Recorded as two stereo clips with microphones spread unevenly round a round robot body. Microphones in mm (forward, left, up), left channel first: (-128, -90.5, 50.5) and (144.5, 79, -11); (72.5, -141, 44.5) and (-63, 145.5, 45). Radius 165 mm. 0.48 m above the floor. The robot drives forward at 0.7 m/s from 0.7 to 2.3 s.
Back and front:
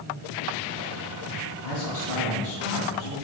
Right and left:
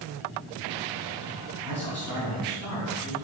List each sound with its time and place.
1.6 s a man speaking: 175° left, 3 m